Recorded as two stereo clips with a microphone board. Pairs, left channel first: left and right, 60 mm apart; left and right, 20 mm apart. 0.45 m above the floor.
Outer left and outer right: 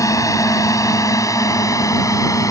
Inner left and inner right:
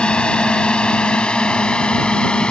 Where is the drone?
65° left (ahead or behind).